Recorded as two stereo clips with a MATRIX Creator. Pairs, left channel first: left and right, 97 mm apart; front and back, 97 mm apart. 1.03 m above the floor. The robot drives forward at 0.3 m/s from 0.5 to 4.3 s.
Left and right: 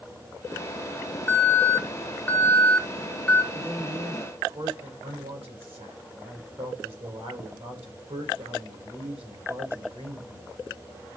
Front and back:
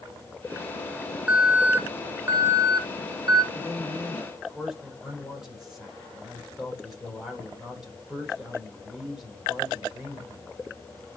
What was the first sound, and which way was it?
An alarm, 110° left.